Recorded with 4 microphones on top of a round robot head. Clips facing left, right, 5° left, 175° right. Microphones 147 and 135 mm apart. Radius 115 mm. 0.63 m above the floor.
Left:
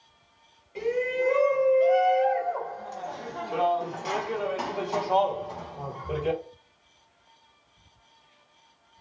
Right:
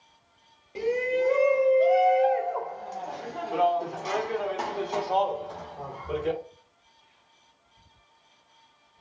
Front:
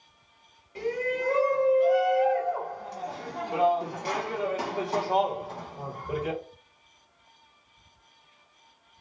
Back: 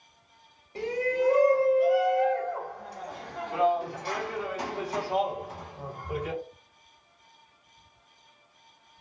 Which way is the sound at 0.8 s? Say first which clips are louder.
Right 1 dB, back 2 dB; 125° right.